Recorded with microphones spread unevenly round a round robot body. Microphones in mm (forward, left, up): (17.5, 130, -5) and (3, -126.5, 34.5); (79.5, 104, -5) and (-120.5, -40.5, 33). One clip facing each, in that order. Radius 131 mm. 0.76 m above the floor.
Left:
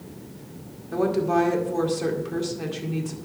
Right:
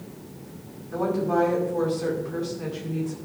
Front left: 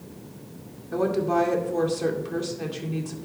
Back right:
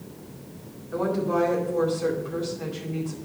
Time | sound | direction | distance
0.9 | a woman speaking | 65° left | 2 m